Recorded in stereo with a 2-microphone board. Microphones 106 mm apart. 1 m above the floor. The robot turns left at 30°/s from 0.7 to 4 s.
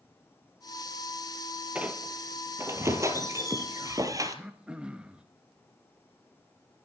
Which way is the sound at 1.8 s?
25° right.